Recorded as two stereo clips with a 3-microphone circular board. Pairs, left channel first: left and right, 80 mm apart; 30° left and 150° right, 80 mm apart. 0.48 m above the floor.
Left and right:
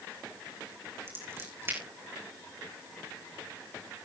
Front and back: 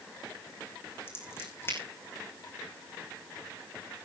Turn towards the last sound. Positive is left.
turn(degrees=-30)